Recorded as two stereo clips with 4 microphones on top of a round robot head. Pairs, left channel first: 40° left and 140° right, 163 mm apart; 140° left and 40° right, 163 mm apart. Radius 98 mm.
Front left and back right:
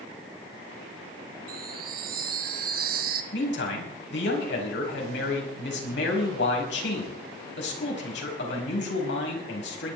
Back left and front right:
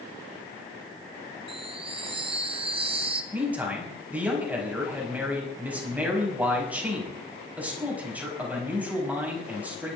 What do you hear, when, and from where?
1.5 s a chime: 100° right, 1.2 m
3.3 s a man speaking: 40° left, 5 m